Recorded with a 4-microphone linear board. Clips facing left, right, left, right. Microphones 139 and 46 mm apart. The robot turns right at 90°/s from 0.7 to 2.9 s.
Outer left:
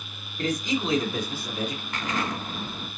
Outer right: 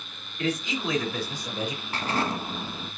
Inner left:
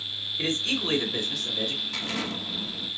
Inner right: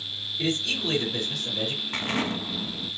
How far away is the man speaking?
About 1.9 m.